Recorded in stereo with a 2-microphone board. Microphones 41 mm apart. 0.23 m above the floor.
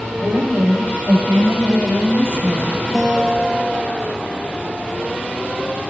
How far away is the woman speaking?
About 8 m.